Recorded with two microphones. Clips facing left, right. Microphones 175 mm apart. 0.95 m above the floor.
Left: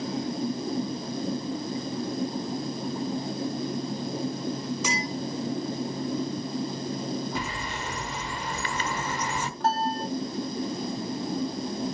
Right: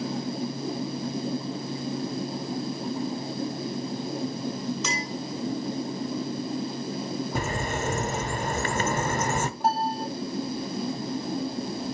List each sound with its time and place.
4.8 s a clink: 10° left (ahead or behind), 5 m
7.3 s a bird: 45° right (ahead or behind), 0.8 m
9.6 s a piano: 10° right (ahead or behind), 1.8 m